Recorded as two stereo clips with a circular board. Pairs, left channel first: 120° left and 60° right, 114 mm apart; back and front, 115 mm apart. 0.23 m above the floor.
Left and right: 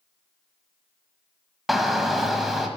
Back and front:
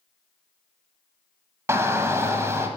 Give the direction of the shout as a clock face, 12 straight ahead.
11 o'clock.